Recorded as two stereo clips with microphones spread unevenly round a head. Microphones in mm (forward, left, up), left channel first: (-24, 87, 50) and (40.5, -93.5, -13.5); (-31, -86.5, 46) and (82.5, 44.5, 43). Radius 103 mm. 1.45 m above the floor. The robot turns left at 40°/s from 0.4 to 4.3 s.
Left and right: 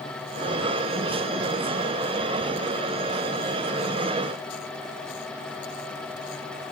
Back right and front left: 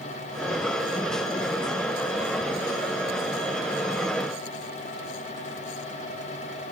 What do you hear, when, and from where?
Only background noise.